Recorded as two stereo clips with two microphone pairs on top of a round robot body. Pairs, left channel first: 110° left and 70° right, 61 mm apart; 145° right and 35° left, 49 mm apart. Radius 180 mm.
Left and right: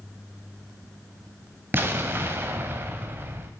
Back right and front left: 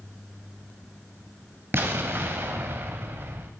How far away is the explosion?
About 0.5 m.